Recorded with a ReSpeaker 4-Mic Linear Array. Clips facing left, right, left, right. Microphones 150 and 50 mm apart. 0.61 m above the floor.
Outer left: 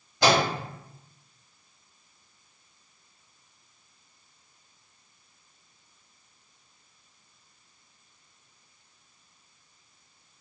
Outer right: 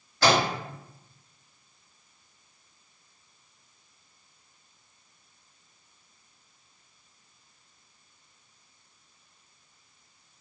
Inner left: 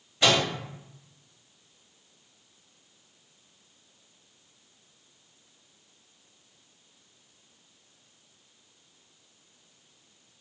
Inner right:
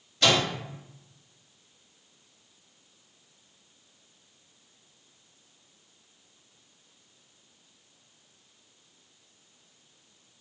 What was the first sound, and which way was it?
A microwave, 20° left (ahead or behind).